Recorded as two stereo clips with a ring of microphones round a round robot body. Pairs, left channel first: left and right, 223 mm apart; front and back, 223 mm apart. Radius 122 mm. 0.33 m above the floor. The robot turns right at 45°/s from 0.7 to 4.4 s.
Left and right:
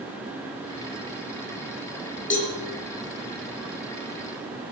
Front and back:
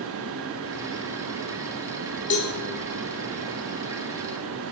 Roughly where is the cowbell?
Ahead left.